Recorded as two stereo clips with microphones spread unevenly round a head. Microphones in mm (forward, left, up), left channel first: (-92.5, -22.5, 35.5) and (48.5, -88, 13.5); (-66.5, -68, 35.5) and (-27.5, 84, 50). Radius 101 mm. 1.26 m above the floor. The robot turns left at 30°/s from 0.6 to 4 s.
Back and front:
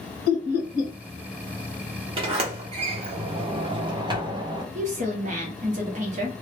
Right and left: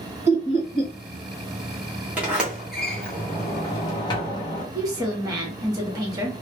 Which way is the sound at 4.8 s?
10° left.